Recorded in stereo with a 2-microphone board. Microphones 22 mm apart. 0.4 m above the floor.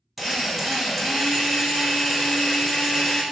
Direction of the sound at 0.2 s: Centre (ahead or behind).